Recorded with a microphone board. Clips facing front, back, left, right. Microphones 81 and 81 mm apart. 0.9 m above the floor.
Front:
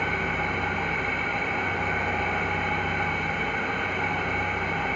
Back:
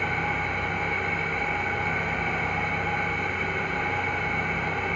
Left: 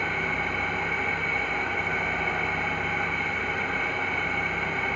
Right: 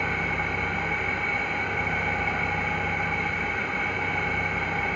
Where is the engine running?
5° right, 1.3 m.